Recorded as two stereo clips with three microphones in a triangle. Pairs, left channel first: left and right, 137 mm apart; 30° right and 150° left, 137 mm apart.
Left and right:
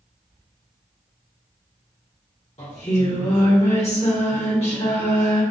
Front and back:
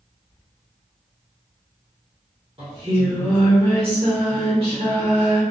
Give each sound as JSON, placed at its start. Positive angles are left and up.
{"t": 2.6, "sound": "singing", "azimuth_deg": 115, "distance_m": 1.8}